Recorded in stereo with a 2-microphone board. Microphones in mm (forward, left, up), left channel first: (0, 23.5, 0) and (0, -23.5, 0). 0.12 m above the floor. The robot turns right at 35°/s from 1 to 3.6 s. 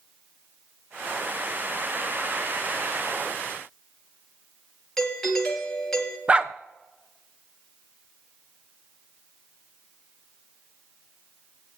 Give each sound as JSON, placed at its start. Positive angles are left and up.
{"t": 5.0, "sound": "a doorbell", "side_deg": 10, "distance_m": 2.5}
{"t": 6.3, "sound": "a dog barking", "side_deg": -25, "distance_m": 0.6}